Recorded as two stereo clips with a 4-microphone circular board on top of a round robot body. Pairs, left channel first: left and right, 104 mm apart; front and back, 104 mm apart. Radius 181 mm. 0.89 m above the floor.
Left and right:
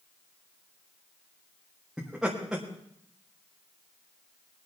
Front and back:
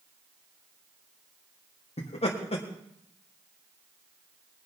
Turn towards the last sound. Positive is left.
turn(degrees=-5)